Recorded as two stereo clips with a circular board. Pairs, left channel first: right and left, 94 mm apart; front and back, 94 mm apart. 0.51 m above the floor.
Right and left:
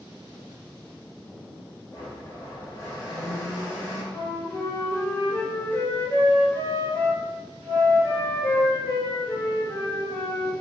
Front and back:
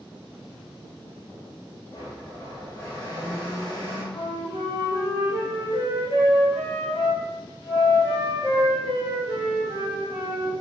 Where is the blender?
40° right, 1.8 m.